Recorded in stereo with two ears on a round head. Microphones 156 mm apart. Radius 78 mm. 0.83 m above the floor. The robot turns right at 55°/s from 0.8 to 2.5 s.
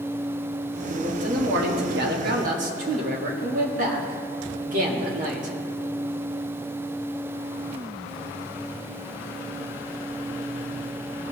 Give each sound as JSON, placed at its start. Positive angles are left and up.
{"t": 0.9, "sound": "a man speaking", "azimuth_deg": -140, "distance_m": 1.6}